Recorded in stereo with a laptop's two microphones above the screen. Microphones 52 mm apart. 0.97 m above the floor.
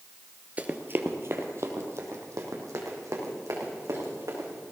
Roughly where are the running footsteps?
Right.